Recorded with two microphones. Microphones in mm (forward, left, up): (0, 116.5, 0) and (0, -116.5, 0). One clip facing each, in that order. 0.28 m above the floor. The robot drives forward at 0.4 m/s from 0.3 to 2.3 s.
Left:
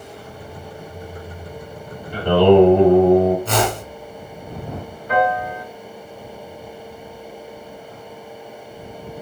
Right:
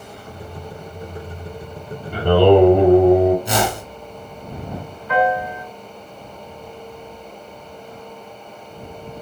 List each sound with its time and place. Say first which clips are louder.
2.1 s singing: even; 55° right (ahead or behind), 3.5 m
3.5 s a whoosh: left 1 dB; 15° right (ahead or behind), 2.5 m
5.1 s a piano: right 1 dB; 40° left (ahead or behind), 3 m